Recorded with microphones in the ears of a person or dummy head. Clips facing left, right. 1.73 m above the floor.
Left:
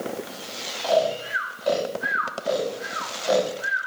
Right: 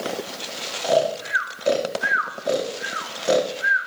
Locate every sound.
0.8 s snoring: 35° right (ahead or behind), 1.2 m